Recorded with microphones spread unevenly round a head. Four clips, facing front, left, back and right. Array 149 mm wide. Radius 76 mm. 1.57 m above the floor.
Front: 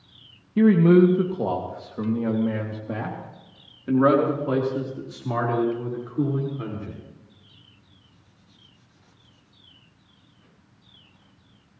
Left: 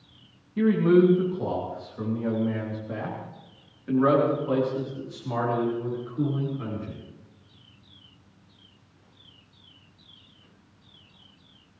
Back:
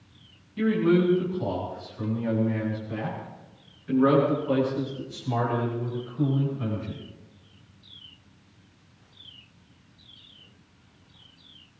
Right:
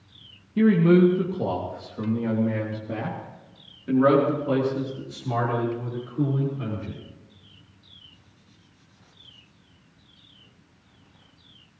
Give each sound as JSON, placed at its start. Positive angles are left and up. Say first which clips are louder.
{"t": 0.6, "sound": "a man speaking", "louder": "right 2 dB, front 6 dB", "azimuth_deg": -20, "distance_m": 1.9}